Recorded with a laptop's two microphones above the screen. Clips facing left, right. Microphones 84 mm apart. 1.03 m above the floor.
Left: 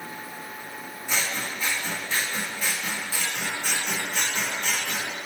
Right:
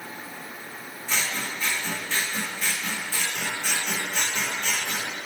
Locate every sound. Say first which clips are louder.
1.1 s scissors: even; 10° left (ahead or behind), 1.3 m